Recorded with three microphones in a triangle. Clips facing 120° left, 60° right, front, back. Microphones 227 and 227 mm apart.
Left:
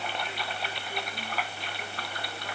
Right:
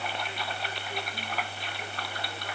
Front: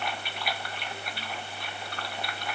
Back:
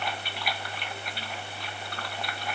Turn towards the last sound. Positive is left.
No sound to turn to.